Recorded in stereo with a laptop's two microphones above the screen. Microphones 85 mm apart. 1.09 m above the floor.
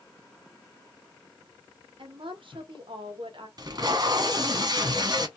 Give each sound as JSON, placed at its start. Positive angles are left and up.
{"t": 2.0, "sound": "a woman speaking", "side_deg": -75, "distance_m": 0.8}
{"t": 3.6, "sound": "tape being pulled", "side_deg": -50, "distance_m": 1.0}